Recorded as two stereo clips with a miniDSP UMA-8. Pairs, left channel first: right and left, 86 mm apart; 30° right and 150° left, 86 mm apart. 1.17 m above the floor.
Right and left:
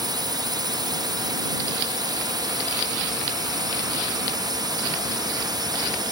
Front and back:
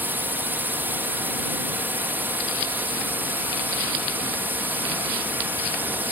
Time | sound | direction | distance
0.0 | a drone | 90° left | ?